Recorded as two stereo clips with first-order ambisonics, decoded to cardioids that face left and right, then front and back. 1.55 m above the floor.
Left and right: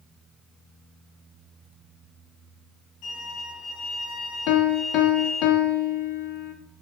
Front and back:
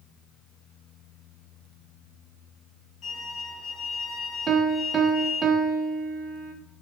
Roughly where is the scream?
I don't hear a scream.